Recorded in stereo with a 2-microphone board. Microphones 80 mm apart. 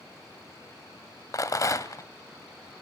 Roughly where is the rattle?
Left.